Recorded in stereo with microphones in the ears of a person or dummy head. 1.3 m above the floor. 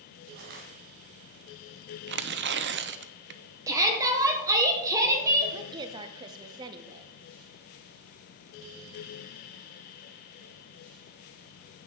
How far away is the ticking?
I don't hear ticking.